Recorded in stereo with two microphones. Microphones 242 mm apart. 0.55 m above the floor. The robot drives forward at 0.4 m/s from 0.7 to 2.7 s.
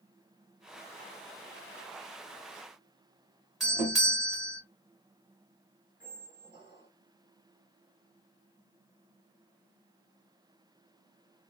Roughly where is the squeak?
Right.